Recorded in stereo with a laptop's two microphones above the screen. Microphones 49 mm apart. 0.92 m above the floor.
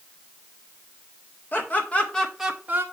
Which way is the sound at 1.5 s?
40° left (ahead or behind).